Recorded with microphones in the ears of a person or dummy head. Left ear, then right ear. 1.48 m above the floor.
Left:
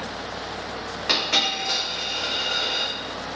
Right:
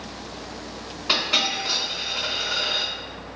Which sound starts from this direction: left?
A dropped coin, at 1.1 s.